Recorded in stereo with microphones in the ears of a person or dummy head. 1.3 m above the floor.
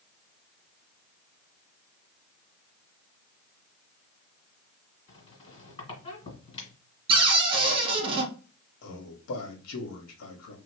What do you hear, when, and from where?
5.1 s a squeak: 35° left (ahead or behind), 2.5 m
7.1 s a cupboard door: 25° right (ahead or behind), 1.0 m
8.8 s a man speaking: 90° left, 1.4 m